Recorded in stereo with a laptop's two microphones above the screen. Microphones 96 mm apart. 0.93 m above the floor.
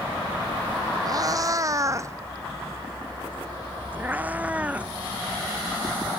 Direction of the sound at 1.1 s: 40° right (ahead or behind).